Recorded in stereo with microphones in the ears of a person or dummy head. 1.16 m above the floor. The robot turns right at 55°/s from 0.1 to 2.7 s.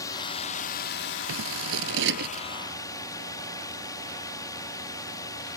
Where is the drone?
25° left; by 5.6 s 165° left.